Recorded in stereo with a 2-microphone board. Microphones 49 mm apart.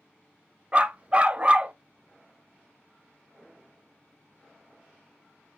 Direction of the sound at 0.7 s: 25° right (ahead or behind).